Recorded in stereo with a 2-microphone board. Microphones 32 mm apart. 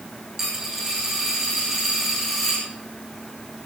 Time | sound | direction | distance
0.4 | a dropped coin | 10° right (ahead or behind) | 9 m